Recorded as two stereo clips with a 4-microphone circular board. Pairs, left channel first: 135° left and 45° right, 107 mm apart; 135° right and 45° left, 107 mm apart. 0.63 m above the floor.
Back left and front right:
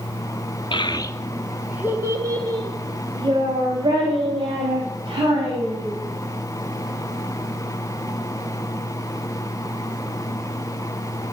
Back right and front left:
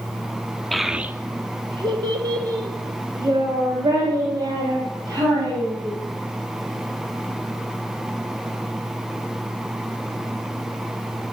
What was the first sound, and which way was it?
A child speaking, 135° left.